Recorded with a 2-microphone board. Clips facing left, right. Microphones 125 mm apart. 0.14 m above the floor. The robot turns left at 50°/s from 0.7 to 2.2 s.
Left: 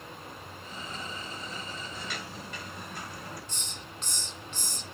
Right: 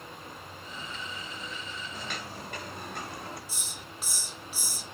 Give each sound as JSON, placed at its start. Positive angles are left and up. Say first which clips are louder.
{"t": 1.9, "sound": "footsteps", "louder": "right 1 dB", "side_deg": -50, "distance_m": 3.0}
{"t": 3.5, "sound": "a hiss", "louder": "even", "side_deg": -5, "distance_m": 0.8}